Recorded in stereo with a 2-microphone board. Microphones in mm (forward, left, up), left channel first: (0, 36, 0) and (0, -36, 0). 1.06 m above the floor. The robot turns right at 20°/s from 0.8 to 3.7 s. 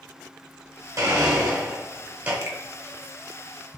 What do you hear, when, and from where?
1.0 s a blender: 45° right (ahead or behind), 1.1 m; by 2.3 s 25° right (ahead or behind), 1.1 m
2.4 s a finger snap: 45° right (ahead or behind), 0.5 m